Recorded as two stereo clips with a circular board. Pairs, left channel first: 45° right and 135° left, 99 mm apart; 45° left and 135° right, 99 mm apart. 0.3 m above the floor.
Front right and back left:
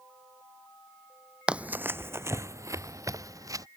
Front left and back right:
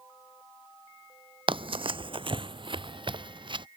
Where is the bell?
I don't hear a bell.